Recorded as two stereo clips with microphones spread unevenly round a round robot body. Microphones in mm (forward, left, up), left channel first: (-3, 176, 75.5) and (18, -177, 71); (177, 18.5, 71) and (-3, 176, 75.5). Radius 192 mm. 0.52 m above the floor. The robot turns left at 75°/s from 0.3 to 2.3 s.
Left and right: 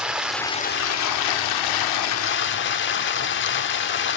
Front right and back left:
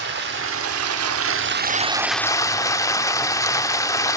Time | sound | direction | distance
0.0 | running water | 175° right | 0.9 m